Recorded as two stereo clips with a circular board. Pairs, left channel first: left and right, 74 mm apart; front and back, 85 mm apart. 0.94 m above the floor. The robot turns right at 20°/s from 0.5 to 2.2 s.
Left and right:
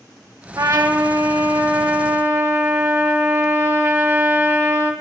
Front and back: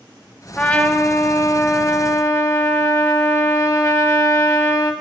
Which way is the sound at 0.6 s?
75° right.